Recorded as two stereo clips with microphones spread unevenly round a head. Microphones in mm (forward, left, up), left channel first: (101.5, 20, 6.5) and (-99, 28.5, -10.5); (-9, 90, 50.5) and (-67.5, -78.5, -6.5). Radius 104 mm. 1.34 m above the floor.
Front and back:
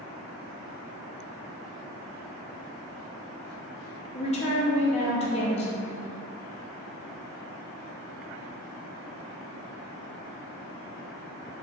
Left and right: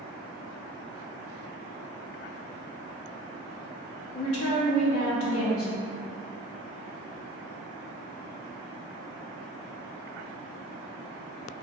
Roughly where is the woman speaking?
Ahead left.